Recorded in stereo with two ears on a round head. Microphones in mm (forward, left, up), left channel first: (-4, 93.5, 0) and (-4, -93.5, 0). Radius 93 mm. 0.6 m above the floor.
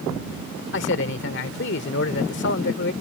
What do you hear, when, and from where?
0.7 s a man speaking: 60° left (ahead or behind)